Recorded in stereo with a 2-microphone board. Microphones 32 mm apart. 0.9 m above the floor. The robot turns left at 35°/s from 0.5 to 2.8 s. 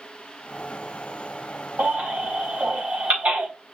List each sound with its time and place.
1.8 s a baby crying: 85° right, 4 m; by 3.5 s 55° right (ahead or behind), 4 m